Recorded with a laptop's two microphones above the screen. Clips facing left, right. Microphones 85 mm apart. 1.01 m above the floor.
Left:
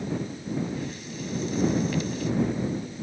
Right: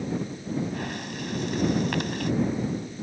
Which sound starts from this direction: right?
Breathing, at 0.7 s.